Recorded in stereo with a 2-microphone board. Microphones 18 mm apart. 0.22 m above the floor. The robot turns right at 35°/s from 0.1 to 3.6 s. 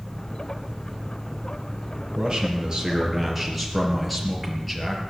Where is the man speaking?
50° right, 5 m; by 5.0 s straight ahead, 5 m.